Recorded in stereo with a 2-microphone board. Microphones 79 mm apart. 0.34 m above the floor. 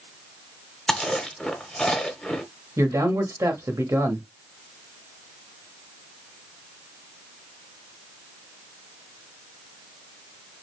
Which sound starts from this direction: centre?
Chewing, at 0.9 s.